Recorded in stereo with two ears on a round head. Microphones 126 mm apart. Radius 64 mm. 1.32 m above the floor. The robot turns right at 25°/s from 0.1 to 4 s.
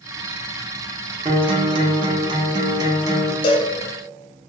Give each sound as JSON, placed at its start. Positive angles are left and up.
{"t": 1.2, "sound": "a guitar", "azimuth_deg": -95, "distance_m": 0.6}
{"t": 3.4, "sound": "a cowbell", "side_deg": 35, "distance_m": 0.6}